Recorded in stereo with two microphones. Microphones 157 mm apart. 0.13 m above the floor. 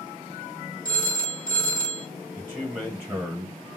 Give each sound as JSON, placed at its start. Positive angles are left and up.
{"t": 0.8, "sound": "a phone ringing", "side_deg": 30, "distance_m": 2.0}
{"t": 2.4, "sound": "a man speaking", "side_deg": -15, "distance_m": 1.6}